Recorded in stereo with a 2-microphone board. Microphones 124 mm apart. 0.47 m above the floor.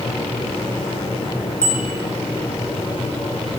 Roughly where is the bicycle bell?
Right.